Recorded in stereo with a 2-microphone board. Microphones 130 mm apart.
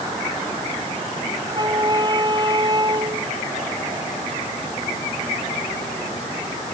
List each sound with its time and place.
1.5 s a flute: 35° right (ahead or behind)